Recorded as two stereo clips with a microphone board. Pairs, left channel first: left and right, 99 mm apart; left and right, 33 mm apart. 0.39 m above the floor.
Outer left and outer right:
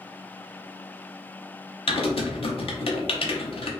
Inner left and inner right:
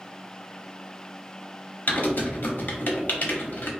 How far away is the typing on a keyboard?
About 0.6 m.